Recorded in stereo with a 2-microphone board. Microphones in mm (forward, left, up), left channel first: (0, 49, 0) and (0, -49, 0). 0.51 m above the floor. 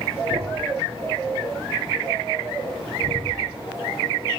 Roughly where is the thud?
Right.